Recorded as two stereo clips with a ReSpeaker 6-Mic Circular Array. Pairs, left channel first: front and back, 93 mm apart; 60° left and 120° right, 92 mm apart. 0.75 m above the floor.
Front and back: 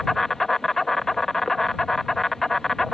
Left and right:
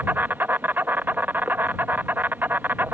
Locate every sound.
0.0 s an insect: 85° right